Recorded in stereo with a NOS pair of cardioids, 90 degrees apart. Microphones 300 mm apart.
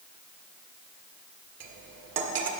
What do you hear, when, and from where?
1.6 s cutlery clinking: 60° right, 1.3 m